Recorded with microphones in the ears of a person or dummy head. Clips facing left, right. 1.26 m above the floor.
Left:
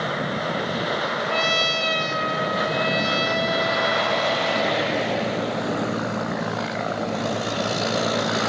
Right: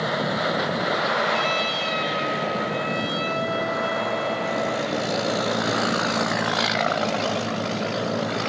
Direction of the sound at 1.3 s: 60° left (ahead or behind).